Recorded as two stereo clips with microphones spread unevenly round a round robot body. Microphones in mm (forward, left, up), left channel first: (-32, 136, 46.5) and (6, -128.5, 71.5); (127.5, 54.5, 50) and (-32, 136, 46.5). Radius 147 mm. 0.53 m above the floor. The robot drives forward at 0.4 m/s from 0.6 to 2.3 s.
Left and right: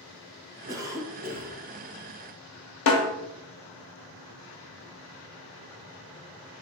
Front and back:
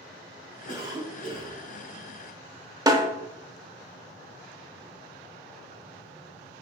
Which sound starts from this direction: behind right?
A cough, at 0.7 s.